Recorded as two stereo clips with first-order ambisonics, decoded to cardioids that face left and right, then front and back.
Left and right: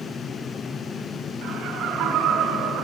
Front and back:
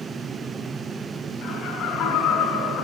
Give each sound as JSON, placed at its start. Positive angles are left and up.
{"t": 1.4, "sound": "laughter", "azimuth_deg": -45, "distance_m": 3.5}